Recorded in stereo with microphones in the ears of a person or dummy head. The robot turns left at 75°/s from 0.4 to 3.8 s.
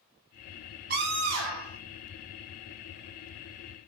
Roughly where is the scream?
Ahead right.